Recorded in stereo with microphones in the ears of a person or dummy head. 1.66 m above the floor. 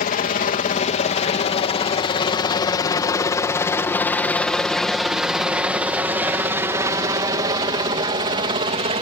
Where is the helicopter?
40° left (ahead or behind); by 9.0 s 30° right (ahead or behind).